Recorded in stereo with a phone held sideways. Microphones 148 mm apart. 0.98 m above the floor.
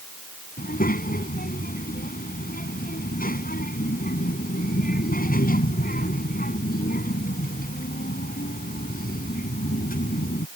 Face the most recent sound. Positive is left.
turn(degrees=75)  # may be behind; listen again after turning